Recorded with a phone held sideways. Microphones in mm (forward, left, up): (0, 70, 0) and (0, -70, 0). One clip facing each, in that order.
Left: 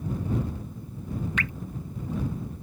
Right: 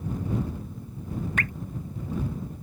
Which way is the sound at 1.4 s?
45° right (ahead or behind).